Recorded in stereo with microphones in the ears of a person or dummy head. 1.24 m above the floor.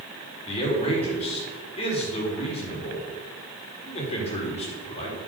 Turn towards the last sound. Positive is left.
turn(degrees=25)  # may be behind; listen again after turning